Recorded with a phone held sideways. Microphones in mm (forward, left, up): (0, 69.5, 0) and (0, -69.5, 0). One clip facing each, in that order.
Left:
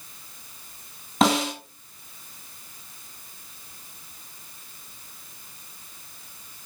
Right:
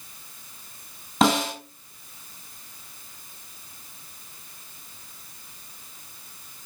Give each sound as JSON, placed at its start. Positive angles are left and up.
{"t": 1.2, "sound": "a snare drum", "side_deg": 0, "distance_m": 3.0}